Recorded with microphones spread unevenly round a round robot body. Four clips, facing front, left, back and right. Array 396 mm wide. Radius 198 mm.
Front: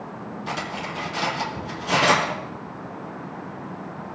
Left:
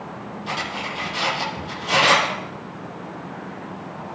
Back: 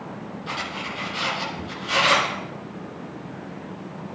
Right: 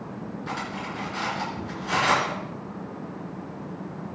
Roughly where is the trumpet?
No trumpet in this recording.